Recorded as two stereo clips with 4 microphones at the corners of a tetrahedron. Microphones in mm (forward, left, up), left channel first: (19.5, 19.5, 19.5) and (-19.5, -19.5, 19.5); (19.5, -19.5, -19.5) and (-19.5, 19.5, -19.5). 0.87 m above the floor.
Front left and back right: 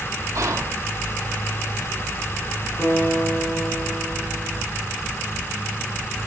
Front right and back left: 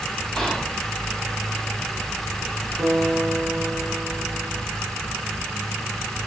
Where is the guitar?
75° left, 2.5 m.